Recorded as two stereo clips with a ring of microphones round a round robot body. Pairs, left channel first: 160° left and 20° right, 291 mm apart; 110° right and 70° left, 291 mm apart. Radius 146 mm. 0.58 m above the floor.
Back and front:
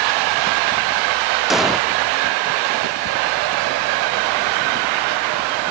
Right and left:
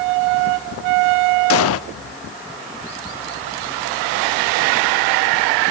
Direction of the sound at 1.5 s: 110° right.